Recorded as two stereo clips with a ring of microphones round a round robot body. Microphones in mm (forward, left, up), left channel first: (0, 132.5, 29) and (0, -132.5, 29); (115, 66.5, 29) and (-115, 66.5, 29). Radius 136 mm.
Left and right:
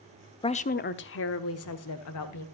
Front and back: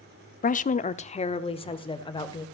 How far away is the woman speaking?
About 0.7 m.